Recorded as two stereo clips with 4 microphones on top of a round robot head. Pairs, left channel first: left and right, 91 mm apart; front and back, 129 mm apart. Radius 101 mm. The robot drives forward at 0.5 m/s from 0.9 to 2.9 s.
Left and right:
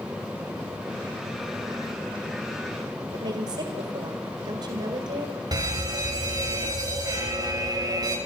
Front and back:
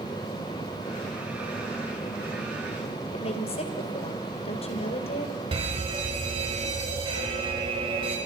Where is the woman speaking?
45° right, 2.5 m.